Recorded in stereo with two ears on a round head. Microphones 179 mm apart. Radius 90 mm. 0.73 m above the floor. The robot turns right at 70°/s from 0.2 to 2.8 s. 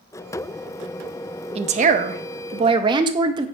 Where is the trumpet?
No trumpet in this recording.